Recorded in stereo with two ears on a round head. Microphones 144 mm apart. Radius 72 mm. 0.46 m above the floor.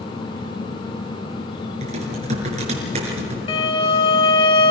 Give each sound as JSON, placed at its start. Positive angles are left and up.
{"t": 1.8, "sound": "typing on a keyboard", "side_deg": -45, "distance_m": 5.0}
{"t": 3.5, "sound": "a violin", "side_deg": 35, "distance_m": 1.7}